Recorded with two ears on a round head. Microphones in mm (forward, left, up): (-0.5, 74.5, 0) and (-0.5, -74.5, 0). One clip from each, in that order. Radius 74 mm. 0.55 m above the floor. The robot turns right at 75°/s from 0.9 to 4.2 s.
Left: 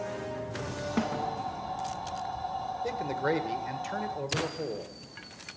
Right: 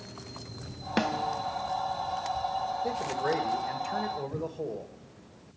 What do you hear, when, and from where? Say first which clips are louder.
1.0 s a snare drum: right 4 dB; 80° right, 0.6 m; by 1.4 s 50° right, 0.6 m
2.8 s a man speaking: right 1 dB; 65° left, 1.6 m; by 4.9 s 165° left, 1.6 m